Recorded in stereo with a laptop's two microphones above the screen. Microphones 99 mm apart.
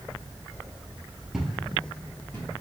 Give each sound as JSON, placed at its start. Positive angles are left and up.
{"t": 1.3, "sound": "footsteps", "side_deg": -5, "distance_m": 1.0}